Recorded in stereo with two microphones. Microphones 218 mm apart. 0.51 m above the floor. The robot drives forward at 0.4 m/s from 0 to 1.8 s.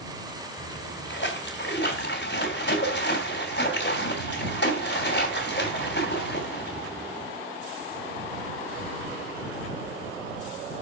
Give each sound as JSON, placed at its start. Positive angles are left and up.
{"t": 0.6, "sound": "a splash", "side_deg": 60, "distance_m": 3.0}